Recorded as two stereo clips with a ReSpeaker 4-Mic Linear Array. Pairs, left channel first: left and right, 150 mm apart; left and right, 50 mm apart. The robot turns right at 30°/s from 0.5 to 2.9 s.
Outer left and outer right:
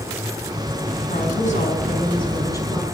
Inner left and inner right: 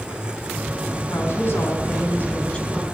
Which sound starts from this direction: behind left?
A woman speaking, at 1.1 s.